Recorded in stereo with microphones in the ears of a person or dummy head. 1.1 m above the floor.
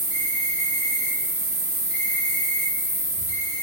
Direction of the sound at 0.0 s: 5° right (ahead or behind).